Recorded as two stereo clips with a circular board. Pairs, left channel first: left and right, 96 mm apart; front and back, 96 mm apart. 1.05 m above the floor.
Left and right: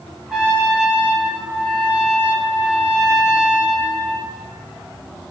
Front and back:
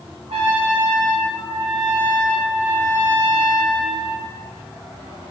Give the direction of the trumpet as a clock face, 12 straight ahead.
6 o'clock.